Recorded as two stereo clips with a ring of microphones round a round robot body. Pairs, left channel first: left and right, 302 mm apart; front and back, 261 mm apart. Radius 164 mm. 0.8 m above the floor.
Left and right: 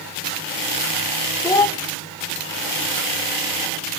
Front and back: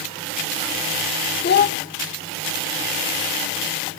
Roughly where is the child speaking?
Ahead.